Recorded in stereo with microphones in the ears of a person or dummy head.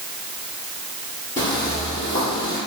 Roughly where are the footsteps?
Left.